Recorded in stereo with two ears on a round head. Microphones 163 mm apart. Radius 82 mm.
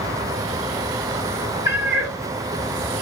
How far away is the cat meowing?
About 0.9 m.